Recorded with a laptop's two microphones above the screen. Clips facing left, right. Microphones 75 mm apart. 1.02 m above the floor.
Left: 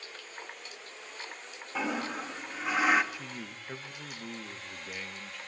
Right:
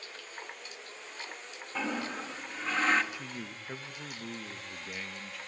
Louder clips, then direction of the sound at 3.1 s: Even; 5° right (ahead or behind).